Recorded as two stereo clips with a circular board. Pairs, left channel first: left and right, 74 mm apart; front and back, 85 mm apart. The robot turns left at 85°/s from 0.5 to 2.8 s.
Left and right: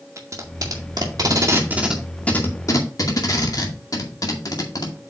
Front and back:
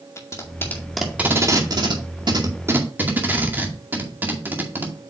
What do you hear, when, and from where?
0.2 s tape being pulled: 50° right, 2 m; by 5.0 s 115° left, 2 m